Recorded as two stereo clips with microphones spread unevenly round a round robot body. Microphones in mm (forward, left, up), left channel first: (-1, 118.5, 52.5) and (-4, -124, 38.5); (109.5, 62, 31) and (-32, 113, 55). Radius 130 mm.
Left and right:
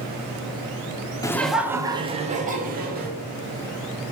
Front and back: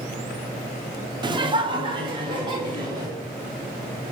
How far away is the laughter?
About 0.8 m.